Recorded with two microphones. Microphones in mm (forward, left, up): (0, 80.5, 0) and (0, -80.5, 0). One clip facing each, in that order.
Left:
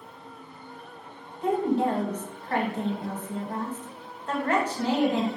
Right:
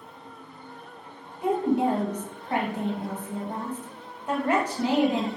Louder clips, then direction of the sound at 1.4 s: Right 1 dB; 15° right (ahead or behind).